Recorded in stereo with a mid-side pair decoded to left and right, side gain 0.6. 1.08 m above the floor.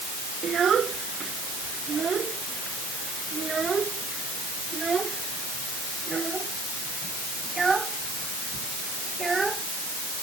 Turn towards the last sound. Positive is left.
turn(degrees=-15)